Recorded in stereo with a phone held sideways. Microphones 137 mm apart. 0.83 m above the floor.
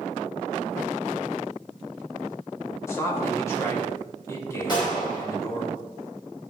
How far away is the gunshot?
About 4.5 m.